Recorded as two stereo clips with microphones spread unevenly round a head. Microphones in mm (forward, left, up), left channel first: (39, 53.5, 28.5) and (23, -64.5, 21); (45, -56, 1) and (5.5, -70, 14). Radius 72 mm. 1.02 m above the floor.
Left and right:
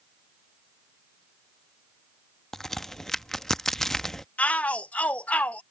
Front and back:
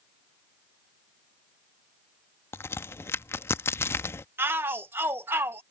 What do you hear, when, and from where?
2.5 s a crack: straight ahead
4.4 s a shout: 160° left